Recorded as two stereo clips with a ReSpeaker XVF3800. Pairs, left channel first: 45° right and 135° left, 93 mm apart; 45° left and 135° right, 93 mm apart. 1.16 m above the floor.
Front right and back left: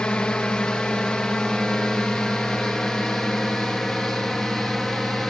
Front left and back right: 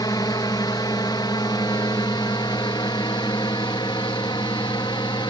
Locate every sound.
0.0 s a drone: 30° left; by 5.3 s 45° left